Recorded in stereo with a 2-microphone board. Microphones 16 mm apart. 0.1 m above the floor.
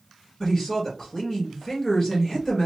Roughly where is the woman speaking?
Left.